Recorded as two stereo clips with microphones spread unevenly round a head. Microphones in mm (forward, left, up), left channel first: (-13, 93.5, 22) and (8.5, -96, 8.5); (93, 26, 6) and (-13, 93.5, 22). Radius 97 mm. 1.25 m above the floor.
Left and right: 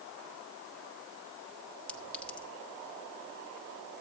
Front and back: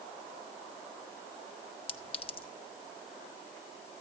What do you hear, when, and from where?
1.9 s a clink: 15° left, 0.9 m